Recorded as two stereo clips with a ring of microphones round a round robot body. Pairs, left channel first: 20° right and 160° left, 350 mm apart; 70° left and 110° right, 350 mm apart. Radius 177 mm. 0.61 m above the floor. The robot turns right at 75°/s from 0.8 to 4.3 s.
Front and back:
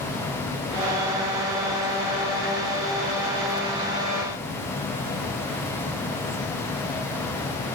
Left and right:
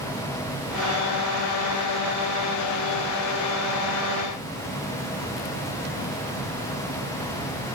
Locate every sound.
Only background noise.